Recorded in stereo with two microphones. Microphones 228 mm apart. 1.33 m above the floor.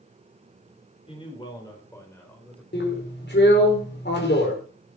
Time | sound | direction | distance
1.1 | a man speaking | 25° left (ahead or behind) | 5 m
2.7 | a drill | 50° left (ahead or behind) | 4 m